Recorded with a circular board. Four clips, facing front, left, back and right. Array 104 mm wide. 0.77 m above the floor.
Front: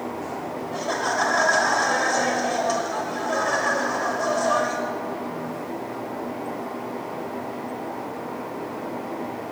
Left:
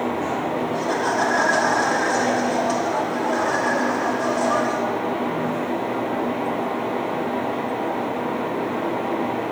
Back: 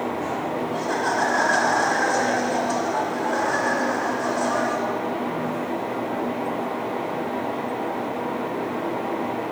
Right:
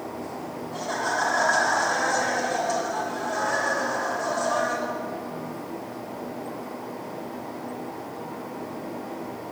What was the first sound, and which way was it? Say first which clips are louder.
Laughter: left 2 dB, front 1 dB; 15° left.